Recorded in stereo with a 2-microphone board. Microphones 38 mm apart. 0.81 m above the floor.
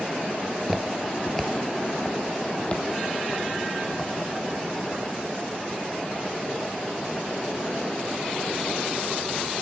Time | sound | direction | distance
0.4 | footsteps | 30° right (ahead or behind) | 0.8 m